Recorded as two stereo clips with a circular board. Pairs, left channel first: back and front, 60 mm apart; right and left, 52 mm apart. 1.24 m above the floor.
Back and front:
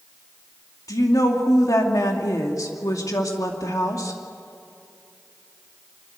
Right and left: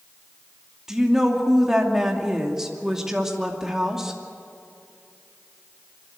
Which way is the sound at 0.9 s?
170° left.